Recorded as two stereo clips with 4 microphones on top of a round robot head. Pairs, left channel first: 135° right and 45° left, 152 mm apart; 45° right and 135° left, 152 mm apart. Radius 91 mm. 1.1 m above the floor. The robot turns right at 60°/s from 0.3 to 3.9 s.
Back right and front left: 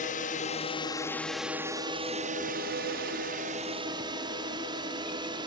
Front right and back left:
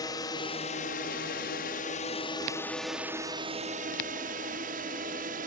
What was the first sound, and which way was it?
A drone, 110° right.